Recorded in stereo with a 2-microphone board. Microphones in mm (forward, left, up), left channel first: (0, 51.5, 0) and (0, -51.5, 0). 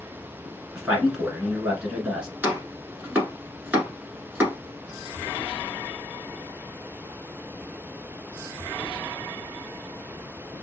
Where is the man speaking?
10° right (ahead or behind), 1.2 m.